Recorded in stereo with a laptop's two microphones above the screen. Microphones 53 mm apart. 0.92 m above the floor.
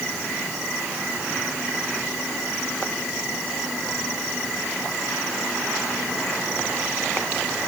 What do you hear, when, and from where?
Only background noise.